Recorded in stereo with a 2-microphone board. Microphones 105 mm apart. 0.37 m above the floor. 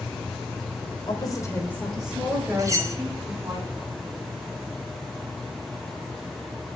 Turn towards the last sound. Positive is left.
turn(degrees=-35)  # may be behind; listen again after turning